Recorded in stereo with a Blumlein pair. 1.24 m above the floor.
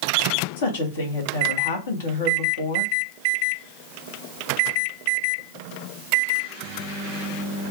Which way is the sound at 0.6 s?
60° left.